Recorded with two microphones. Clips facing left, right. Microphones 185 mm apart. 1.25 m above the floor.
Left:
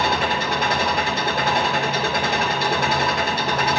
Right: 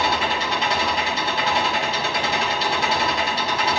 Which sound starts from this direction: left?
An engine running, at 0.0 s.